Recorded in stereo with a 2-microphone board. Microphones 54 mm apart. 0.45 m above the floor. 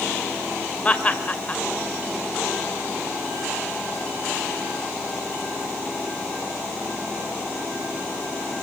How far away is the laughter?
About 2.5 m.